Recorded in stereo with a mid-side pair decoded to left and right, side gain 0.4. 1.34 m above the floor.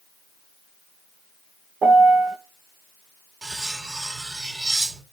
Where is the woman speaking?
No woman speaking in this recording.